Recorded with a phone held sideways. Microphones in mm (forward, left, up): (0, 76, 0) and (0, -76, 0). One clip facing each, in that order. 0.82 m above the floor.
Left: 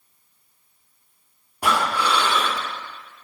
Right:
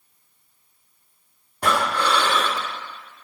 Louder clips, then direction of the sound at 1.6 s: Even; 10° left (ahead or behind).